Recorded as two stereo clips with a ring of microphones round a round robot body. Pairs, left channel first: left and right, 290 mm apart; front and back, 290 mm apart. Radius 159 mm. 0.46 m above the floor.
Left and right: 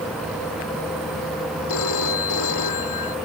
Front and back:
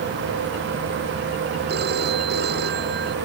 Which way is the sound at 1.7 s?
120° left.